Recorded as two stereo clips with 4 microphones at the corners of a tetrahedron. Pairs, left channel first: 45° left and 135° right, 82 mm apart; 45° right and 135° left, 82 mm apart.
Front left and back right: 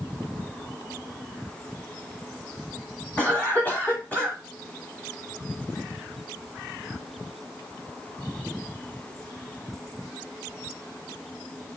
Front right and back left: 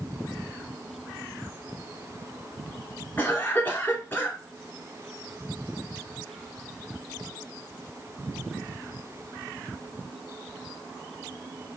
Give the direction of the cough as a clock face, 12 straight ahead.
12 o'clock.